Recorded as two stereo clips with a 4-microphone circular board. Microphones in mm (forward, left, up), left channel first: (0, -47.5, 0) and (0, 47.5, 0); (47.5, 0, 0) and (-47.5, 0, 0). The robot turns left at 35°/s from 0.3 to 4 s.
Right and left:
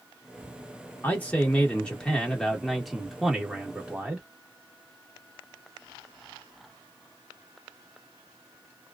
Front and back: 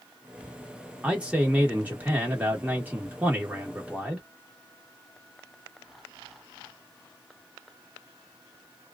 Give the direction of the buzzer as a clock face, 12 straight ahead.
No buzzer in this recording.